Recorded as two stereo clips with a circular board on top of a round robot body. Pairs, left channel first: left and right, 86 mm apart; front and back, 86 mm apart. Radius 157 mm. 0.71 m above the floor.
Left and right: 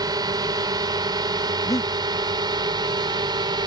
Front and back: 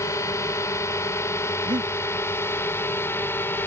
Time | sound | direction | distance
0.0 | a drone | 50° right | ?
1.6 | breathing | 145° left | ?